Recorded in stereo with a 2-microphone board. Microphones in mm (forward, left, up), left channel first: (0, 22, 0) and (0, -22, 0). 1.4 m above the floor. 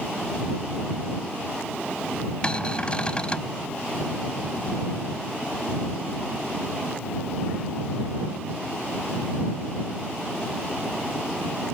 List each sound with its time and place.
2.4 s a cupboard door: 20° left (ahead or behind)